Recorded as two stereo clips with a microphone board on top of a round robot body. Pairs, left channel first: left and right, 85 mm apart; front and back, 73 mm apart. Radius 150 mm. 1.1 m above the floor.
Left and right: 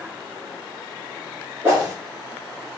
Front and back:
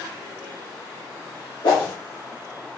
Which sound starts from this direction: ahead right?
A whoosh, at 1.6 s.